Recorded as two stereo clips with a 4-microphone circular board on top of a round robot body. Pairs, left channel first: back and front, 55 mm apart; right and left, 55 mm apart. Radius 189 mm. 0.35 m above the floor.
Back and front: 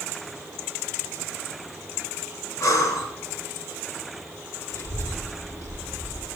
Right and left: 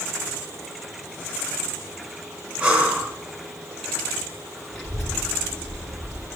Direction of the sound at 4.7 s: 170° right.